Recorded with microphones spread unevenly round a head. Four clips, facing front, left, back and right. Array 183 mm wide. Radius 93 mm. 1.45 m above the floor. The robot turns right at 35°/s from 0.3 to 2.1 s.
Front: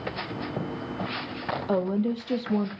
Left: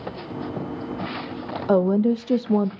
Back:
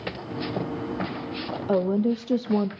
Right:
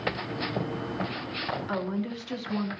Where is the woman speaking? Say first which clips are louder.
Left 17 dB, back 4 dB; 105° left, 0.7 m; by 2.7 s 120° left, 0.7 m.